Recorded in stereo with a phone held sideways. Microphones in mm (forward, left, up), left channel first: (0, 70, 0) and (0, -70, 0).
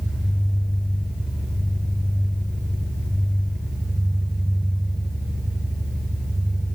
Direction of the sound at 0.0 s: Centre (ahead or behind).